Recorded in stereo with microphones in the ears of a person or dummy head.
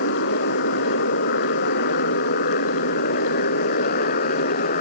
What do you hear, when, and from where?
0.0 s a motorcycle: 65° left (ahead or behind); by 4.8 s 55° left (ahead or behind)